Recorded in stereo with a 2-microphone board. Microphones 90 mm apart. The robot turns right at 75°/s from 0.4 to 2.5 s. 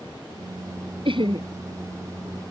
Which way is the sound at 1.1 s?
90° right.